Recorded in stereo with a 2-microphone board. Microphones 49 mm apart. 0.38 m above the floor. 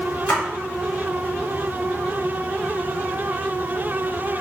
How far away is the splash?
About 1.0 m.